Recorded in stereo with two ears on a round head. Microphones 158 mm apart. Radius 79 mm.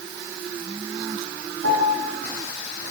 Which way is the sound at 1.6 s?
85° right.